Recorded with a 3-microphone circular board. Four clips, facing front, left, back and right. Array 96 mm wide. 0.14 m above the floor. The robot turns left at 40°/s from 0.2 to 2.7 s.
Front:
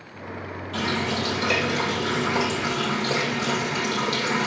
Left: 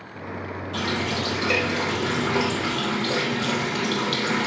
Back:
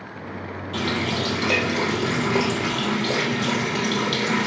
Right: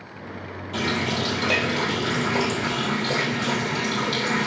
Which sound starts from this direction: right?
A running tap, at 0.7 s.